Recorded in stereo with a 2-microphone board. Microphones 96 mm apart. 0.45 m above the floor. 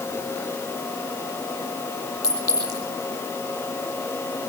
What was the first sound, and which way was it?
A clink, 30° left (ahead or behind).